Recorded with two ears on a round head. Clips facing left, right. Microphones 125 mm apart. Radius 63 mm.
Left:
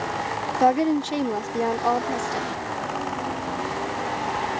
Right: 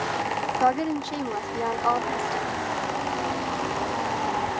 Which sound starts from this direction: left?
A woman speaking, at 0.6 s.